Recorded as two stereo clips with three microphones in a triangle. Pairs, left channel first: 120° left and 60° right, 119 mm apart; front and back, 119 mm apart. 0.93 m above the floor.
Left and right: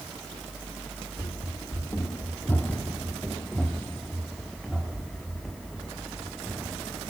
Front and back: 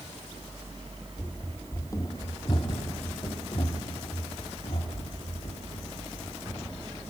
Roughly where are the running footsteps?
Left.